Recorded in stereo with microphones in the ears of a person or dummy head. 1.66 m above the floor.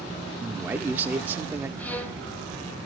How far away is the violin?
About 1.5 m.